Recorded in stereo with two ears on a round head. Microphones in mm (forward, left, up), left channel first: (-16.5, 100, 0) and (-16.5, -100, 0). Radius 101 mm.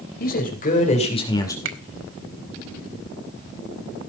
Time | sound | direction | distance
0.2 | a man speaking | 50° left (ahead or behind) | 3.5 m
1.6 | a finger snap | 70° right (ahead or behind) | 1.7 m